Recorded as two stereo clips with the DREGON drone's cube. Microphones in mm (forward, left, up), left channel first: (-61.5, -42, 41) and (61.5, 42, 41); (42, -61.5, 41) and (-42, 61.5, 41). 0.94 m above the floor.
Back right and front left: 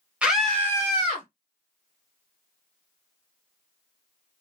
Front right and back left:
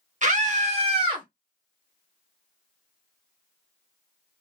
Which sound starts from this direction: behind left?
A scream, at 0.2 s.